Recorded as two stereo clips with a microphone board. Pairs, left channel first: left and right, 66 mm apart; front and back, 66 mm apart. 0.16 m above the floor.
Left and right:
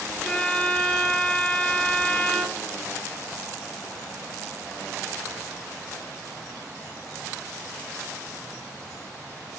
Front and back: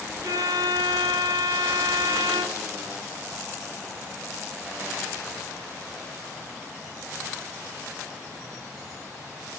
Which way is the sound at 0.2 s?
165° left.